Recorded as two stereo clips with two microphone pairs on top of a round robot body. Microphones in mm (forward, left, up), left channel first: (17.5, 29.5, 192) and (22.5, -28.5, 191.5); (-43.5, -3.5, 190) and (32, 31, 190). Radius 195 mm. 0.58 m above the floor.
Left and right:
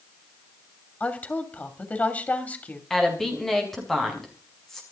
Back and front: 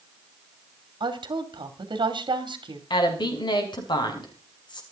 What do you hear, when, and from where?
1.0 s a woman speaking: 35° left, 3 m
2.9 s a woman speaking: straight behind, 5.5 m